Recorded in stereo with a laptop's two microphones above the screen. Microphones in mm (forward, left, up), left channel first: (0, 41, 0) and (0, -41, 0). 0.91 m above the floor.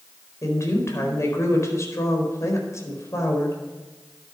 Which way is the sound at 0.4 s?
40° left (ahead or behind).